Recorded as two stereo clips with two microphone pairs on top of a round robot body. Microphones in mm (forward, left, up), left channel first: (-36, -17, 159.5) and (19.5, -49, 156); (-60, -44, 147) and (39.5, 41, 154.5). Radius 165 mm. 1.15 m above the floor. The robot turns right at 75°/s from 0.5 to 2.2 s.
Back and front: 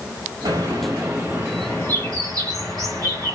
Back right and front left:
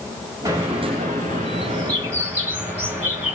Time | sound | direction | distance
0.5 | a bird | 20° right | 1.1 m